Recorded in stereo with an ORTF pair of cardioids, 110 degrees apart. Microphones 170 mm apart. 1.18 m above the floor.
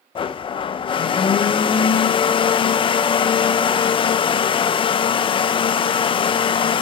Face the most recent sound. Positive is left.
turn(degrees=30)